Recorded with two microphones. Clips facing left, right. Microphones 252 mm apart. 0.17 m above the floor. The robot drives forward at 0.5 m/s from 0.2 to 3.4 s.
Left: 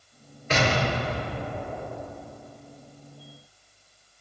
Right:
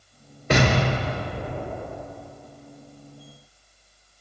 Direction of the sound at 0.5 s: 70° right (ahead or behind).